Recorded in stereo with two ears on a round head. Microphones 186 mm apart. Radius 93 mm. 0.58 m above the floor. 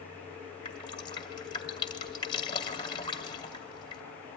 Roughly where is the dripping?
Left.